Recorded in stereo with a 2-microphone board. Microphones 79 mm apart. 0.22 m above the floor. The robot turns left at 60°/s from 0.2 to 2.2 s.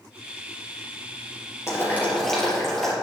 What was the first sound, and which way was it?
Boiling, 40° left.